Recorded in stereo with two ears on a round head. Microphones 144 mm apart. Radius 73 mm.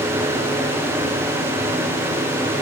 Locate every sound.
Only background noise.